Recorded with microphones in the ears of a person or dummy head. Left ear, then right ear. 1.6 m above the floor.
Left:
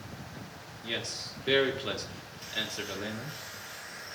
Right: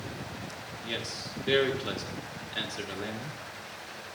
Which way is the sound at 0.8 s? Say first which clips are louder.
Left 1 dB; 10° left (ahead or behind).